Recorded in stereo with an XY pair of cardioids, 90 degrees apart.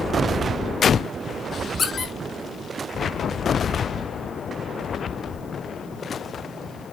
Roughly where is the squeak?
Ahead left.